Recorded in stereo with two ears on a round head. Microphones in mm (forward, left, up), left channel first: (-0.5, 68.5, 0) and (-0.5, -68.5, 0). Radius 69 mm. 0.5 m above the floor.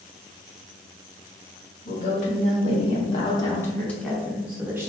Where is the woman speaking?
55° left (ahead or behind), 1.5 m; by 4.9 s 15° right (ahead or behind), 1.2 m.